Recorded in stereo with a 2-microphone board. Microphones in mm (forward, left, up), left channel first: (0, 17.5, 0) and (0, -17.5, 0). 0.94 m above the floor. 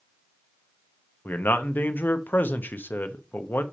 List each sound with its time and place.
1.2 s a man speaking: 70° left (ahead or behind), 0.8 m